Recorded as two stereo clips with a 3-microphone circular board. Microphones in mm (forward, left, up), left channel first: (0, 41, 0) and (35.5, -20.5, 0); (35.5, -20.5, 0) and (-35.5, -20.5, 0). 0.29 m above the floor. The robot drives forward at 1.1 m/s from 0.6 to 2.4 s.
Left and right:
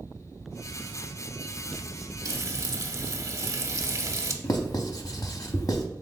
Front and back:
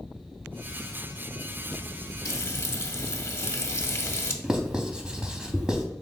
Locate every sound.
2.2 s frying: 30° right, 0.7 m; by 4.3 s 40° right, 0.6 m
4.4 s writing: 105° left, 0.6 m